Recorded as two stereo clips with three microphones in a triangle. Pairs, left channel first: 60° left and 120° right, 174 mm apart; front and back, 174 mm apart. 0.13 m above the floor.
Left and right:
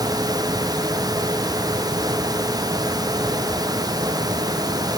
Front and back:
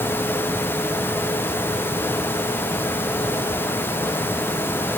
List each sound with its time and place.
Only background noise.